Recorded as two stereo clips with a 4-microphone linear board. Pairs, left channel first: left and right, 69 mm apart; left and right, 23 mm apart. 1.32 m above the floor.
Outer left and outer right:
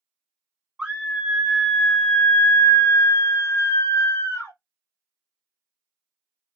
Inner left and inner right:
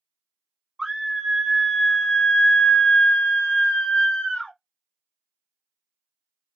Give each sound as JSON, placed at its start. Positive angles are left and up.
{"t": 0.8, "sound": "a scream", "side_deg": -15, "distance_m": 1.0}